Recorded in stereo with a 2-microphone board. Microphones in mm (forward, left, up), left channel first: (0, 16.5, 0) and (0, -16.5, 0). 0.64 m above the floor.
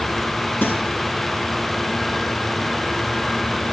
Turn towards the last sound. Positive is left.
turn(degrees=80)